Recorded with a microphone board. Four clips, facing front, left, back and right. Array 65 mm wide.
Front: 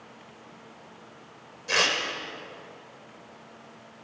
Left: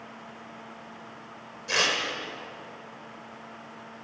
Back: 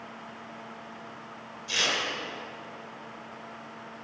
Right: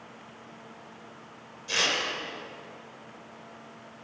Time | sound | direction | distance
1.7 | tearing paper | 25° left | 2.5 m